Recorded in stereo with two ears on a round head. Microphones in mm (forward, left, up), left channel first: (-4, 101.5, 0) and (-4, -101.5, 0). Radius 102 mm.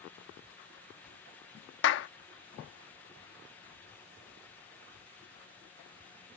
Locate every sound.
1.8 s a clap: 55° left (ahead or behind)